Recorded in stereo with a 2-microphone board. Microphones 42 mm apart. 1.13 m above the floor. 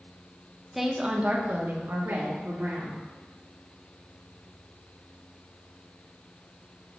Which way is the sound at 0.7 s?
5° right (ahead or behind).